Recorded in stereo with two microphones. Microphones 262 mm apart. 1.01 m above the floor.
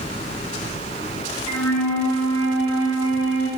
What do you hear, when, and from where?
1.5 s a flute: 75° left (ahead or behind), 5.5 m